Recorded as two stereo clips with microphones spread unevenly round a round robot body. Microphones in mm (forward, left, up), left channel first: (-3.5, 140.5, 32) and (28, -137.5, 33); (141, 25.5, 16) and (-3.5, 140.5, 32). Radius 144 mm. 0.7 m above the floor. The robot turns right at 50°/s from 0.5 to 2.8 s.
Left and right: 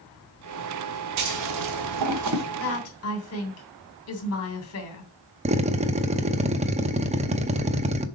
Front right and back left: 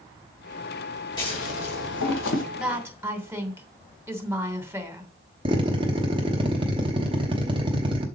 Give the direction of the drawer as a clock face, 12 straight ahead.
I don't hear a drawer.